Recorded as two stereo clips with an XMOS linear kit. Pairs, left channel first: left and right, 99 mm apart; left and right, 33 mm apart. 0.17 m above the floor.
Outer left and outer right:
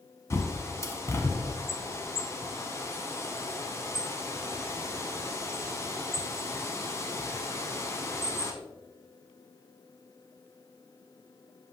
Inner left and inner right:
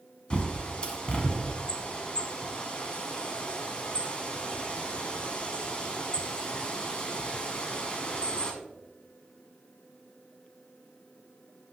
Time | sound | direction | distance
0.3 | a bird | 30° left (ahead or behind) | 1.0 m